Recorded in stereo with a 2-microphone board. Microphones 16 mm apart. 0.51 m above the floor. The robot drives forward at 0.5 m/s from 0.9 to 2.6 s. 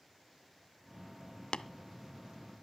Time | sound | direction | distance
1.5 | tapping | 65° left (ahead or behind) | 0.5 m